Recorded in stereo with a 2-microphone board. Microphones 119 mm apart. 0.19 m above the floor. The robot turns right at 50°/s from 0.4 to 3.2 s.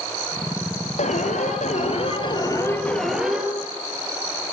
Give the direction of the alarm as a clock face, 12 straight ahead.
10 o'clock.